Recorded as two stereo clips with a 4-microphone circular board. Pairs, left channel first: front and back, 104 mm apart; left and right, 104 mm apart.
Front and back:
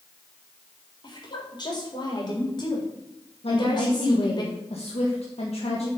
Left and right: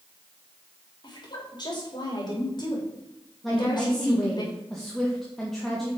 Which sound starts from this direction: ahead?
A woman speaking, at 3.4 s.